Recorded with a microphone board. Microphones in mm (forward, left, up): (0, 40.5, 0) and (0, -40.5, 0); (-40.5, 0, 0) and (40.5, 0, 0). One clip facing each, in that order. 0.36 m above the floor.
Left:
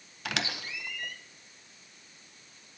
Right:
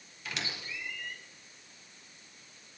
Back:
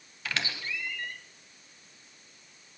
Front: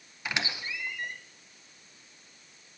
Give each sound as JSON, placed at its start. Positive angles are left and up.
{"t": 0.2, "sound": "a squeak", "azimuth_deg": 70, "distance_m": 0.5}